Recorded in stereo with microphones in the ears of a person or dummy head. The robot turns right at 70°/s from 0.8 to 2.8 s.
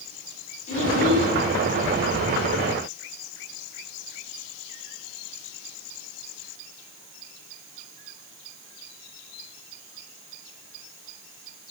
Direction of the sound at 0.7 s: 40° left.